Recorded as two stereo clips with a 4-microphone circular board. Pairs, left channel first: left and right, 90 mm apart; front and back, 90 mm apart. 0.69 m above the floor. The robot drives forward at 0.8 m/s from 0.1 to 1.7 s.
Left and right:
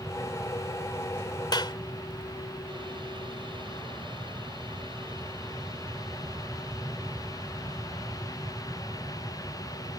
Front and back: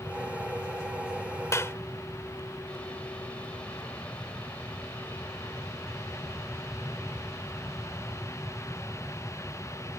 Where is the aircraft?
75° right.